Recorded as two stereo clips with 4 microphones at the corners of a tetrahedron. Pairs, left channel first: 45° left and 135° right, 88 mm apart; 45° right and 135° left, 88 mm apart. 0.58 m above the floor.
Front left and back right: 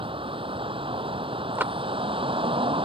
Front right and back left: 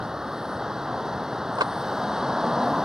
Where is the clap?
160° left.